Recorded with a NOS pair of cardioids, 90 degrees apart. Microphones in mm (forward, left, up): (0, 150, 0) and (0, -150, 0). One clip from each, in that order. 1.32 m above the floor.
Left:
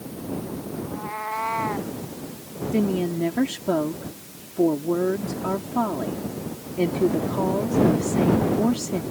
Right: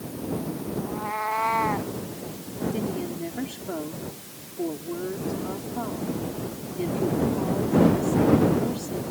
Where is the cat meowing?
15° right; by 1.9 s 10° right.